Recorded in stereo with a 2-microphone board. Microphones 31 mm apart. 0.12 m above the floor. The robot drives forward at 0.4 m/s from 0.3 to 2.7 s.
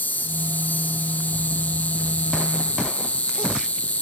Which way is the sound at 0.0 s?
70° left (ahead or behind).